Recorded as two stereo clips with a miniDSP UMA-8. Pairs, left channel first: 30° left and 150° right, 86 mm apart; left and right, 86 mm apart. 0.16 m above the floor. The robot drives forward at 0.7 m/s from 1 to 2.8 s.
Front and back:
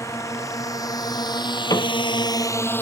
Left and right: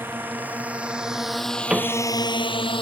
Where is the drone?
25° right; by 2.8 s 95° left.